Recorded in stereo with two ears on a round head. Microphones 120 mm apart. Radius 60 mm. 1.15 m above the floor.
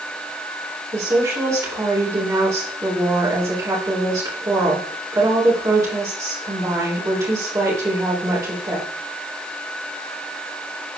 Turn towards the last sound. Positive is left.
turn(degrees=-25)  # may be behind; listen again after turning